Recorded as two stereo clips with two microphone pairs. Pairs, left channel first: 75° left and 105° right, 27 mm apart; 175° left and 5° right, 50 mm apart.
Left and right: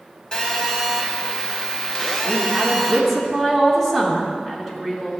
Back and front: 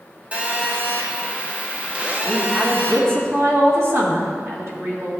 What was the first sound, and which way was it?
A phone buzzing, 30° left.